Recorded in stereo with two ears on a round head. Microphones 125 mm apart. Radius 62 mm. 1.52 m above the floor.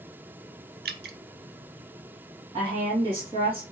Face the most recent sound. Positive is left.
turn(degrees=-35)  # may be behind; listen again after turning